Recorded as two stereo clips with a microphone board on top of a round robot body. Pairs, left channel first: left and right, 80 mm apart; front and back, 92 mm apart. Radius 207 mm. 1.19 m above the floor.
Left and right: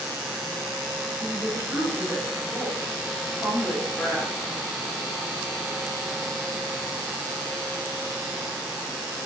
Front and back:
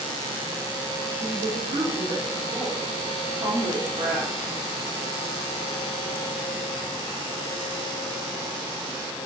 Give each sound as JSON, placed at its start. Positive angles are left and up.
{"t": 1.2, "sound": "a woman speaking", "azimuth_deg": -175, "distance_m": 4.5}